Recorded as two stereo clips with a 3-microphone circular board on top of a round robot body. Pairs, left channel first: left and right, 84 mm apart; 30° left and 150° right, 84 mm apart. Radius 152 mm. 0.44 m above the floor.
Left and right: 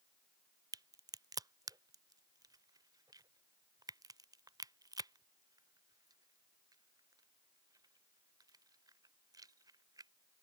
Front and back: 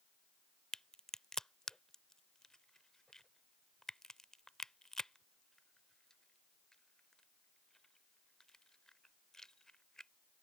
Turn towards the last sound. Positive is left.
turn(degrees=-55)